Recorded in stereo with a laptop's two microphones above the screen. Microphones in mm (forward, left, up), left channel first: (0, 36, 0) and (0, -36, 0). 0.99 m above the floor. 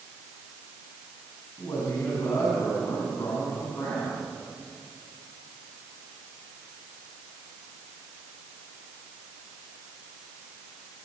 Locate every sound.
1.6 s a man speaking: 50° left (ahead or behind), 9 m